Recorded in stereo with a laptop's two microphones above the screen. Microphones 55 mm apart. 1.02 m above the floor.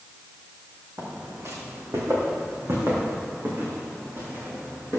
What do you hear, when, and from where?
1.0 s footsteps: 70° right (ahead or behind), 4 m; by 5.0 s 50° right (ahead or behind), 6.5 m